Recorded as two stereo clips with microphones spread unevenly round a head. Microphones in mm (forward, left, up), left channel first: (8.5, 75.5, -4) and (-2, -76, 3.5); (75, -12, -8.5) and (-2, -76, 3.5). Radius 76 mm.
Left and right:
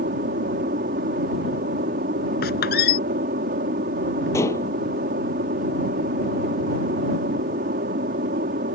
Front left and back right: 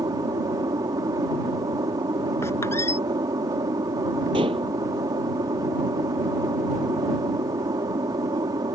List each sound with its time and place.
0.0 s an aircraft: 100° right
2.4 s a squeak: 115° left
4.3 s dishes clattering: 160° left